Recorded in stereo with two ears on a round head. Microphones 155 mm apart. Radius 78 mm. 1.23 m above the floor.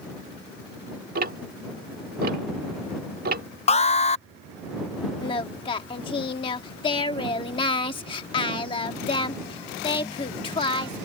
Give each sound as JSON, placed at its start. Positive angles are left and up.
{"t": 1.1, "sound": "ticking", "side_deg": -50}
{"t": 3.7, "sound": "an alarm", "side_deg": 35}
{"t": 5.2, "sound": "singing", "side_deg": 25}